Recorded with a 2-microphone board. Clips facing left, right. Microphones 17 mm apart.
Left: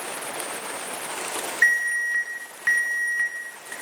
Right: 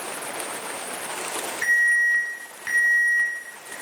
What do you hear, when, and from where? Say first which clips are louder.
1.6 s an alarm: right 2 dB; 30° left (ahead or behind), 2.5 m